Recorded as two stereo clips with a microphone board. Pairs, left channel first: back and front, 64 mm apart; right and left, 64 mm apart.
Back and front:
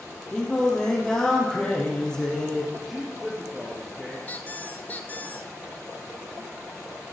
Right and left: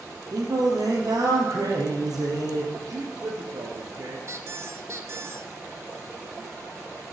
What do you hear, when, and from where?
0.3 s singing: 105° left, 3 m
2.7 s a man speaking: 85° left, 2 m
4.3 s a squeak: 125° left, 0.8 m